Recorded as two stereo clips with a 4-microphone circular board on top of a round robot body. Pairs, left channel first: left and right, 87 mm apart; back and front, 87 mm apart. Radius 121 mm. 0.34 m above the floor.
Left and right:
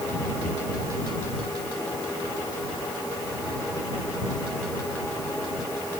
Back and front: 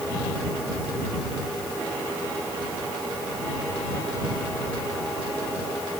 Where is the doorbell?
No doorbell in this recording.